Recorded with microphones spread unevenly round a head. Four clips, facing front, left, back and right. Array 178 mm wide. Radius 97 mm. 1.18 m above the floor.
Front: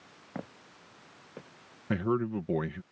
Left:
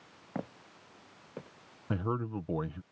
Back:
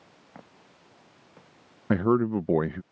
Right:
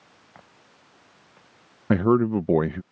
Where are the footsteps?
60° left; by 1.5 s 65° left.